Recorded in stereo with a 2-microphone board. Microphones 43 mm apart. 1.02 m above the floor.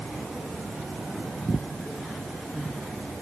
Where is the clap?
I don't hear a clap.